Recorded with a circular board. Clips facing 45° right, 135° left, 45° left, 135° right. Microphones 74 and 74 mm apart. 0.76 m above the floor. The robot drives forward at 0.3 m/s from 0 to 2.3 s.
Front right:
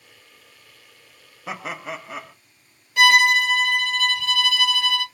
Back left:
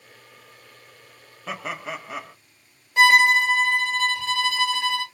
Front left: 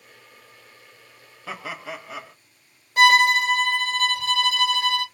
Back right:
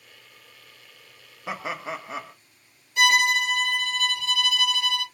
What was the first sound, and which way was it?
Laughter, 110° right.